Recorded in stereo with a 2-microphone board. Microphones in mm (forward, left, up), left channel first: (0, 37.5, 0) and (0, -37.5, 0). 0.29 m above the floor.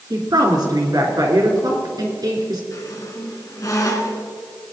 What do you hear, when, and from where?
0.1 s a woman speaking: 65° right (ahead or behind), 3 m
2.7 s a squeak: 50° left (ahead or behind), 2.5 m